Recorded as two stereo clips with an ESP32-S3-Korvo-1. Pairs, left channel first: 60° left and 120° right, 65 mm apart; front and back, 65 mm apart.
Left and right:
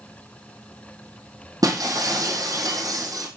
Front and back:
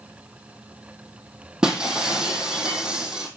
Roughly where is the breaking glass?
Right.